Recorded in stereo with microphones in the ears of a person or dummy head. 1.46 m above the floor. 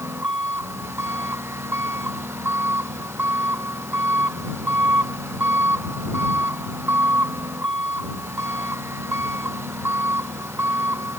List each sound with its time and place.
0.0 s an engine running: 5° right (ahead or behind)